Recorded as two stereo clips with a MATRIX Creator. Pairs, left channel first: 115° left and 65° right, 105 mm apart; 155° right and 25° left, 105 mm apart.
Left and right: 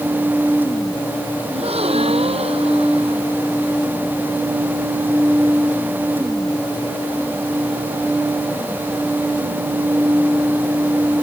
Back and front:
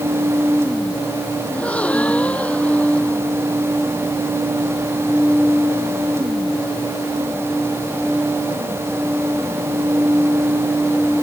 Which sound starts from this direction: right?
A gasp, at 1.5 s.